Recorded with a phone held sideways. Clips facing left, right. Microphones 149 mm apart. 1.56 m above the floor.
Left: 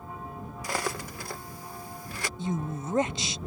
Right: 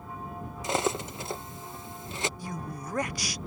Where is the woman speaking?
25° left (ahead or behind).